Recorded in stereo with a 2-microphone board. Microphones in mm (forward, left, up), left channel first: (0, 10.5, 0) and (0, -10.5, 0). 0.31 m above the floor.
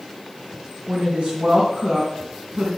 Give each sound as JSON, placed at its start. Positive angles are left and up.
{"t": 0.9, "sound": "a woman speaking", "side_deg": -65, "distance_m": 3.0}